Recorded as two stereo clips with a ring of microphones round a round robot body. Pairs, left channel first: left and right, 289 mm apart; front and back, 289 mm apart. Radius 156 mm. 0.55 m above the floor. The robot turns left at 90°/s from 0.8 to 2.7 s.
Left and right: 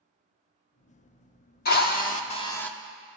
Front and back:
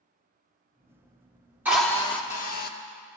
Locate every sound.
1.6 s a drill: 100° left, 1.0 m; by 2.7 s 5° left, 1.0 m